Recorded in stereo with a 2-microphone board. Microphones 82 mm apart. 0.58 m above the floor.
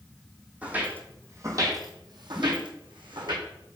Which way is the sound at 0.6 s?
15° right (ahead or behind).